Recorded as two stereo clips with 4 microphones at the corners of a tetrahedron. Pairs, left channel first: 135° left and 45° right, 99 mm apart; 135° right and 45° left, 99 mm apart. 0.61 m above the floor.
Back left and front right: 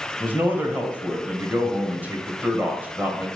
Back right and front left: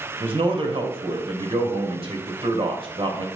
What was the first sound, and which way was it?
A man speaking, 25° left.